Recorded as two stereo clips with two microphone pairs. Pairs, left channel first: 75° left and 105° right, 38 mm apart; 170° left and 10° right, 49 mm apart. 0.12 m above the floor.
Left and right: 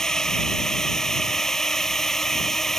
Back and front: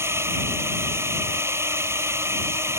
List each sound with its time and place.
0.0 s a drone: straight ahead; by 2.8 s 5° right